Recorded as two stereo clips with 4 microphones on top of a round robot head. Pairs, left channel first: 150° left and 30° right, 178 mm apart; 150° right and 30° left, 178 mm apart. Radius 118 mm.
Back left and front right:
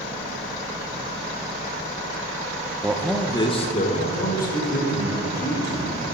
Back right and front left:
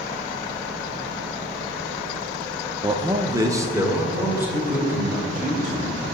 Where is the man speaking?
25° left, 0.9 m; by 6.0 s 115° left, 4 m.